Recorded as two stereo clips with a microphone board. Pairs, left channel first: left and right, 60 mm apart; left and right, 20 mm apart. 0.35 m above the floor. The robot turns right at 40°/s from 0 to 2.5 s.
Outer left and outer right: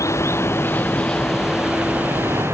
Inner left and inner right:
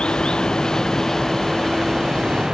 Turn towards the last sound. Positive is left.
turn(degrees=-140)